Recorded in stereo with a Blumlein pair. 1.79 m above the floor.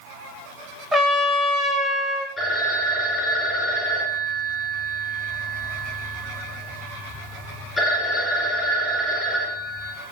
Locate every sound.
0.9 s a trumpet: 10° right, 2 m
2.4 s a phone ringing: straight ahead, 4.5 m